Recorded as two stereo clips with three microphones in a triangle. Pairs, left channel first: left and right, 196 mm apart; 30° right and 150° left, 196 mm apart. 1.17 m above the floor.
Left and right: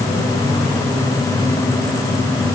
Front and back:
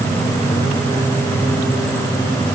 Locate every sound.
Only background noise.